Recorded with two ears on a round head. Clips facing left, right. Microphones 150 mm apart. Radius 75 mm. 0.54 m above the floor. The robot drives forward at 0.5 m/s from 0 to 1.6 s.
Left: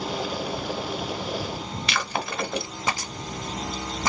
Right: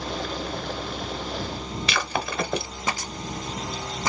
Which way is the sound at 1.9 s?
70° right (ahead or behind).